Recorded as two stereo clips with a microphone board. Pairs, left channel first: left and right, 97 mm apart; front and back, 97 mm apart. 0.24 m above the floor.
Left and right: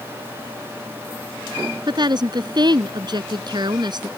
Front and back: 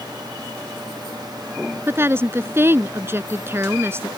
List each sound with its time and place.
1.9 s a woman speaking: 120° right